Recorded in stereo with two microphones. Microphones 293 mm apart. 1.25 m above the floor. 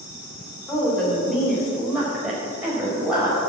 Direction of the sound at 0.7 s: Centre (ahead or behind).